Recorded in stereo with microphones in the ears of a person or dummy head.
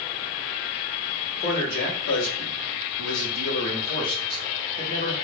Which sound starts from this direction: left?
A man speaking, at 1.4 s.